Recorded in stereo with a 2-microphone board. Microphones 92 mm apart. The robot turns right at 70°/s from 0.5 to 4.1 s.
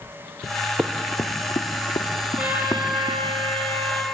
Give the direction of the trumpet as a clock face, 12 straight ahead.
5 o'clock.